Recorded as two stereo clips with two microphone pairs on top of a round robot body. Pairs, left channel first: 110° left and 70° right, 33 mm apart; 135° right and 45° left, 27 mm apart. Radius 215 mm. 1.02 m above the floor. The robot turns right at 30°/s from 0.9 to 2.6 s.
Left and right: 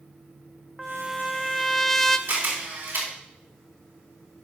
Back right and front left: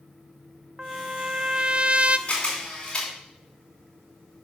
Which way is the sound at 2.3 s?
80° right.